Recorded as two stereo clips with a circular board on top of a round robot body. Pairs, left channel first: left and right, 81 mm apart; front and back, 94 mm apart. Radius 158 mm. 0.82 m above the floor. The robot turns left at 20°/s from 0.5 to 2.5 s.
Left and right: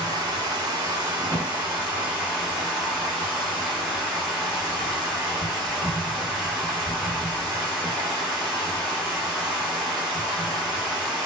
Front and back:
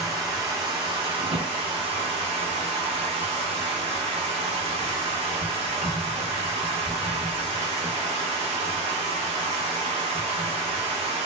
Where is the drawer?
160° left, 0.7 m; by 1.5 s 150° left, 0.7 m.